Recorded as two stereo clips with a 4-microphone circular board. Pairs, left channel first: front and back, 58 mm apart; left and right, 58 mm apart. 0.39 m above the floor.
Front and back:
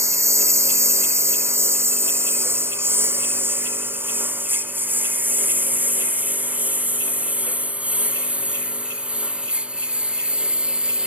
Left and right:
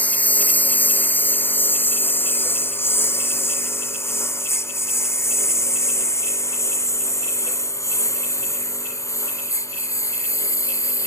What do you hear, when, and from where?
0.0 s a lawn mower: 150° left; by 11.1 s 105° left